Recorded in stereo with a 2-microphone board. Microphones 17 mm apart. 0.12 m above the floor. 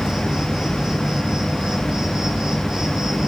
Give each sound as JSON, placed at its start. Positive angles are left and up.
{"t": 0.0, "sound": "an insect", "side_deg": -60, "distance_m": 2.5}